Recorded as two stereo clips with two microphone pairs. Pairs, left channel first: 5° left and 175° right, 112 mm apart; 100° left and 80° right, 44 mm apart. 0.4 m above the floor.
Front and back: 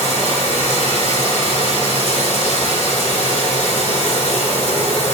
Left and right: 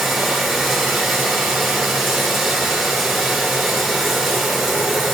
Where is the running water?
5° left, 1.9 m.